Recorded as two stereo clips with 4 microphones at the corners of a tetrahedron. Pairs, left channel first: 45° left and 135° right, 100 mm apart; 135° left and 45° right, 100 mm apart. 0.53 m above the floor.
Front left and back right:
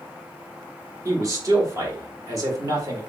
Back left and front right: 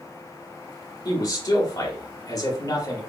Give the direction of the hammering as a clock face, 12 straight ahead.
No hammering in this recording.